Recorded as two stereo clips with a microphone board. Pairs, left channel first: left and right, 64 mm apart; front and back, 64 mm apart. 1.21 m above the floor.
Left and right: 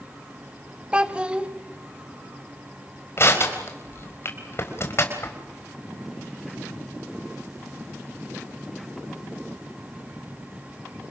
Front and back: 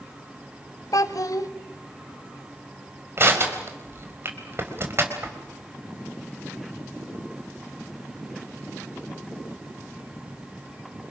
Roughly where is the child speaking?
Ahead.